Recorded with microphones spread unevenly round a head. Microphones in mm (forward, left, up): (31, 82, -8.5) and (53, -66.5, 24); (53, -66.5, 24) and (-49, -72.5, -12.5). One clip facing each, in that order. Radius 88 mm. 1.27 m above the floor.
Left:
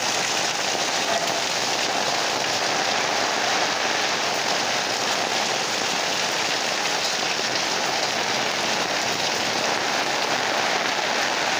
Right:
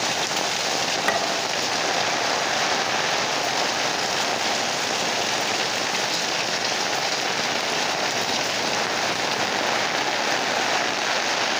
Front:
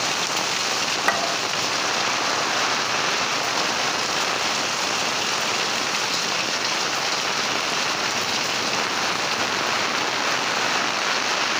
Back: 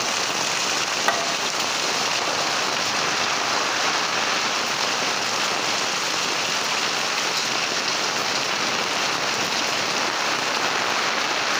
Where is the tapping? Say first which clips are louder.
Even, even; 95° right, 6 m.